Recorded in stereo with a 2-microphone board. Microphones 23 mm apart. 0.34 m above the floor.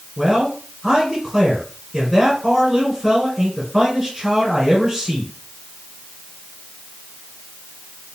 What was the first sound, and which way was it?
A man speaking, 10° right (ahead or behind).